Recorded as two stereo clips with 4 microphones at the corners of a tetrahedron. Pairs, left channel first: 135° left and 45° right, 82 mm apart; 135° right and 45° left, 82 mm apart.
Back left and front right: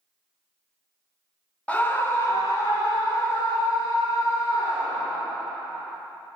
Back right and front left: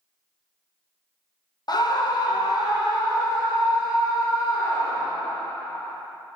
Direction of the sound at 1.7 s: 155° right.